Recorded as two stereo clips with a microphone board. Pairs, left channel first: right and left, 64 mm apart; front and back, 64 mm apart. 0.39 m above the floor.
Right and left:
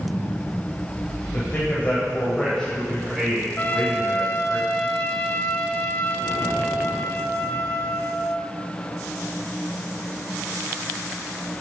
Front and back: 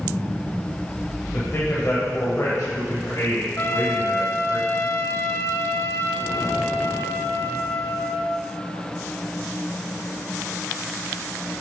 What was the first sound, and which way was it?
A man speaking, 45° right.